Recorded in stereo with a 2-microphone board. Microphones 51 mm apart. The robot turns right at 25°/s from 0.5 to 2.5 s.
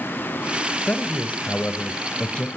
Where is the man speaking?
95° left, 1.2 m; by 2.5 s 135° left, 1.2 m.